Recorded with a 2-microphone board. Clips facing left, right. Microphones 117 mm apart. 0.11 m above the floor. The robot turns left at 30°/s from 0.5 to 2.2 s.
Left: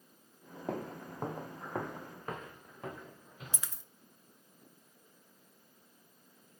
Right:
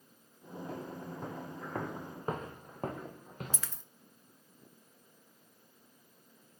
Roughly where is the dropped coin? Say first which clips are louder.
Right 2 dB; centre.